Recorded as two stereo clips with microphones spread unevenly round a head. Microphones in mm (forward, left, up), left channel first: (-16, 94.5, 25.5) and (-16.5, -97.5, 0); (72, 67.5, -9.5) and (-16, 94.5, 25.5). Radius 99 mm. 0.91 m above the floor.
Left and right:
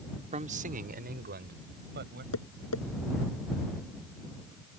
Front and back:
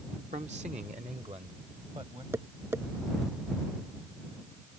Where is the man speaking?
145° right; by 2.2 s 130° right.